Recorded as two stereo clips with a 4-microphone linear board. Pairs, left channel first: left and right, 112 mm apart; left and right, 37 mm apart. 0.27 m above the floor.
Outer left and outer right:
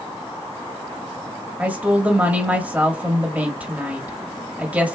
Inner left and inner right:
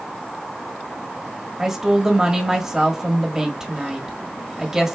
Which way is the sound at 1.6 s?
15° right (ahead or behind).